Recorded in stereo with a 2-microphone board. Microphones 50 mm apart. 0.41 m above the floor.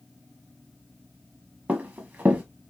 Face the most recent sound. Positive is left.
turn(degrees=-35)  # may be behind; listen again after turning